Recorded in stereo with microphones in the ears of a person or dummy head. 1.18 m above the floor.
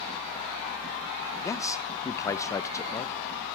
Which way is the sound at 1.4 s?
20° left (ahead or behind).